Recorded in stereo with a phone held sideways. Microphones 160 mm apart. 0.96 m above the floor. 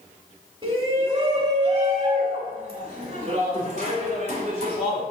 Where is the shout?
35° right (ahead or behind), 1.8 m; by 5.0 s 50° right (ahead or behind), 4 m.